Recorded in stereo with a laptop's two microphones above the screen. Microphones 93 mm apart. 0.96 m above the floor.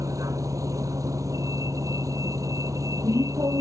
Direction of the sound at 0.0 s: 40° right (ahead or behind).